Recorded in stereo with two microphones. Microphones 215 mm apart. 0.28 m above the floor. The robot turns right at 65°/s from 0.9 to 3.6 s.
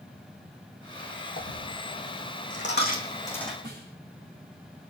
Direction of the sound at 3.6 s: 55° right (ahead or behind).